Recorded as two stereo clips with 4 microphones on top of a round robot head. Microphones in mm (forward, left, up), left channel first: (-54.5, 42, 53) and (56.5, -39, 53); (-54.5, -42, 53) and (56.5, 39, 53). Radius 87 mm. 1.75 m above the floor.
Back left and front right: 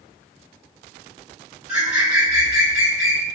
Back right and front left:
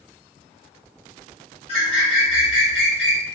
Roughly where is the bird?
Right.